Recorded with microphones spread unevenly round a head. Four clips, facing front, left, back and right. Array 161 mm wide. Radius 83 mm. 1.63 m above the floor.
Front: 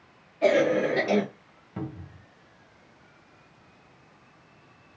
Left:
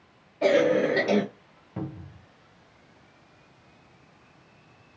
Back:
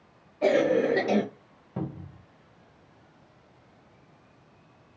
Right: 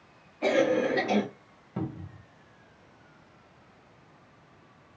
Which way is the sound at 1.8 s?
175° right.